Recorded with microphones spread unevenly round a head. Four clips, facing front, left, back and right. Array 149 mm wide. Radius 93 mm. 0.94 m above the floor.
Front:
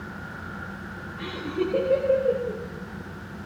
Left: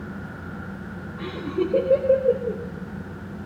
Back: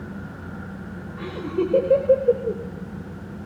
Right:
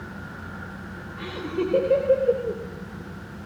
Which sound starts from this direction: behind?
Laughter, at 1.2 s.